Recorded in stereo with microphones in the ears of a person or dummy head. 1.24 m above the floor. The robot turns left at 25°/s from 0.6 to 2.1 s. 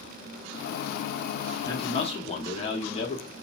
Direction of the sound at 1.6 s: 20° left (ahead or behind).